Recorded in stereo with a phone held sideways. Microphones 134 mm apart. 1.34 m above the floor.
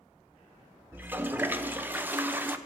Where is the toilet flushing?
15° right (ahead or behind), 0.8 m.